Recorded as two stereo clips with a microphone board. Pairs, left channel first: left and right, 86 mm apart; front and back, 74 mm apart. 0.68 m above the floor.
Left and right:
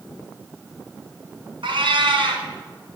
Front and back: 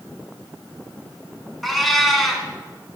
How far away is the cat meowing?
About 1.6 m.